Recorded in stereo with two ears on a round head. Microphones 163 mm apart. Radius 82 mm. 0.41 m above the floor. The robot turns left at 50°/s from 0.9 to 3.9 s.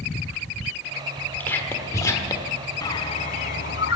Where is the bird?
160° left, 1.1 m; by 4.0 s 105° left, 1.1 m.